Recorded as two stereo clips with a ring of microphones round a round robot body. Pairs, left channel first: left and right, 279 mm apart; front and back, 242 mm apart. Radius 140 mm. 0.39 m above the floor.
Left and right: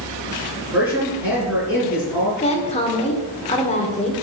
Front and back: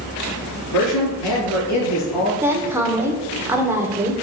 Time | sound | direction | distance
0.7 | a man speaking | 5° right | 5.5 m
2.4 | a woman speaking | 115° left | 1.5 m